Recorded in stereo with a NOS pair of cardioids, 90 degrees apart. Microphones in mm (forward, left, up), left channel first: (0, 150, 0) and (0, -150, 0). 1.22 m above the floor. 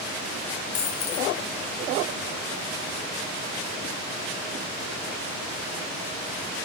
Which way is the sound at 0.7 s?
60° left.